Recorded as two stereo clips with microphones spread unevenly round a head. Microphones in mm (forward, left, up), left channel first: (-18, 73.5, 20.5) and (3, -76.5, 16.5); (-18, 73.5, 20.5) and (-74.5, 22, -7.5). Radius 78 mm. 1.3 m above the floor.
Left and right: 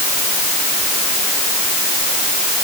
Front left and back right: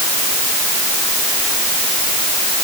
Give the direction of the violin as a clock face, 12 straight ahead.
No violin in this recording.